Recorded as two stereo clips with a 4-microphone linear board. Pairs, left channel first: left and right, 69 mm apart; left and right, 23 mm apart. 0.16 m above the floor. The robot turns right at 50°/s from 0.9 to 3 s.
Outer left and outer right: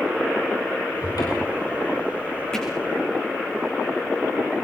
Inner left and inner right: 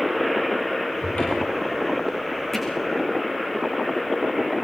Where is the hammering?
10° left (ahead or behind), 6.5 m; by 2.7 s 15° left (ahead or behind), 6.5 m.